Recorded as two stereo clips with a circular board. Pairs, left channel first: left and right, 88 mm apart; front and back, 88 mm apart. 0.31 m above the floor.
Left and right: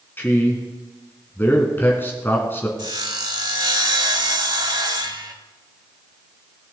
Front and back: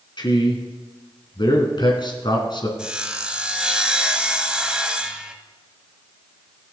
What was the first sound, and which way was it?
A man speaking, 25° left.